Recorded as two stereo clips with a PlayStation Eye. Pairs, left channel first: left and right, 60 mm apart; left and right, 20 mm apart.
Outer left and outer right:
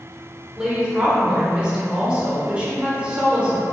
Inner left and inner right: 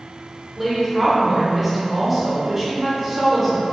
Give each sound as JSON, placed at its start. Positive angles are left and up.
{"t": 0.6, "sound": "a woman speaking", "side_deg": -15, "distance_m": 0.8}